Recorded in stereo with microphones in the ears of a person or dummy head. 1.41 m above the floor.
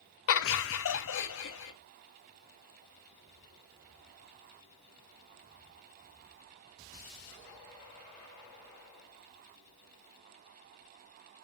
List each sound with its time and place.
0.3 s laughter: 60° left (ahead or behind), 0.7 m; by 1.7 s 65° left (ahead or behind), 1.5 m